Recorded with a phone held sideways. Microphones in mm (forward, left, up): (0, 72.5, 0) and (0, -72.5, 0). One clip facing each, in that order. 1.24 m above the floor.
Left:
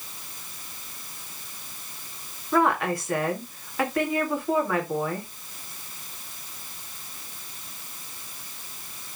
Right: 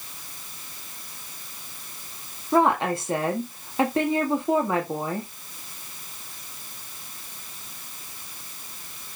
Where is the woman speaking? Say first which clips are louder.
Right 2 dB; 25° right (ahead or behind), 1.8 m.